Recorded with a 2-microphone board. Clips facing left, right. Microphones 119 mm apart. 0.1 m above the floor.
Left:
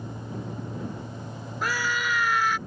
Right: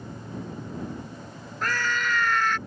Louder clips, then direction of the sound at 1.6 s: Even; 10° left (ahead or behind).